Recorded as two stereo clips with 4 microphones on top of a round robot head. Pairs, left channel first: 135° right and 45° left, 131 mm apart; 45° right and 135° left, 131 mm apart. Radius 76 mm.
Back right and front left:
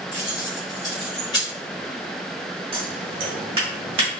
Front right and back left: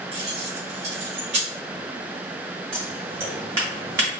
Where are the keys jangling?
170° left, 0.9 m.